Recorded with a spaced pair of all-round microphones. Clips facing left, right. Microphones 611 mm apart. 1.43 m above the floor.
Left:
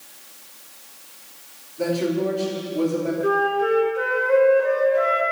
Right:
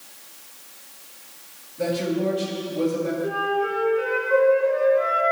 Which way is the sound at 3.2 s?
85° left.